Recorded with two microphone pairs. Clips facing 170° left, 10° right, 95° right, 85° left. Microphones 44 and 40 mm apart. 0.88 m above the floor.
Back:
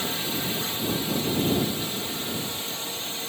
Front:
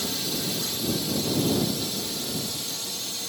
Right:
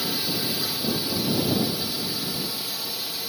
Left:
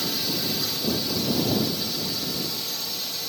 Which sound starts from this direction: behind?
A drone, at 0.0 s.